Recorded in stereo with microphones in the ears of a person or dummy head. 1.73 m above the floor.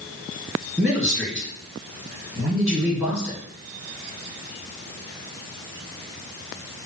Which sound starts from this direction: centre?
A man speaking, at 0.8 s.